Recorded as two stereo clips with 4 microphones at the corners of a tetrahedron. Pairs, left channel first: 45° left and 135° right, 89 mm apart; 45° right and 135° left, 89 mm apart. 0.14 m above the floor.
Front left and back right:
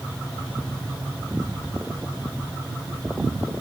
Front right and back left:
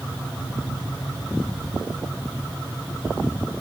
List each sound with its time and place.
Only background noise.